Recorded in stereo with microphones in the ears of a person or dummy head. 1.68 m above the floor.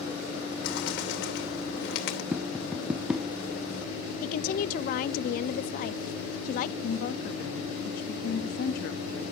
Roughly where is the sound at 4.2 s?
Left.